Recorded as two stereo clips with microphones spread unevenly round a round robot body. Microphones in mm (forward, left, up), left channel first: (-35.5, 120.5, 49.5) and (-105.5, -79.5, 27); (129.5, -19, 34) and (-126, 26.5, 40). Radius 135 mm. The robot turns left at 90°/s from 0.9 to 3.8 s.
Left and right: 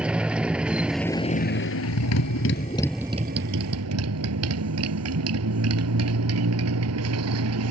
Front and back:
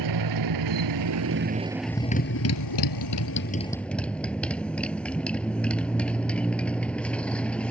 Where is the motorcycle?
165° left; by 7.7 s 95° right.